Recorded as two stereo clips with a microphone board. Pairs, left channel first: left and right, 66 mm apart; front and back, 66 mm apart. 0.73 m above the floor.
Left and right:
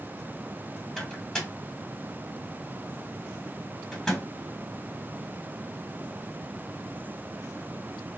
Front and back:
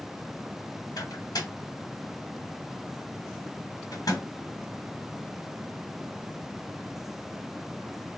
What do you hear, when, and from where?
1.0 s a microwave: 5° left, 1.6 m